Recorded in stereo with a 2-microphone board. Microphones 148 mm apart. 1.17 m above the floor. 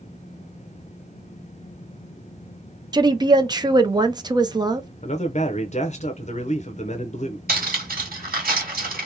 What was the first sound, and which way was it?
A woman speaking, 30° right (ahead or behind).